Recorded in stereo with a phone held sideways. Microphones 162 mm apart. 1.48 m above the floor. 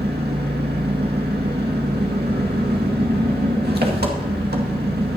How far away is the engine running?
About 1.9 m.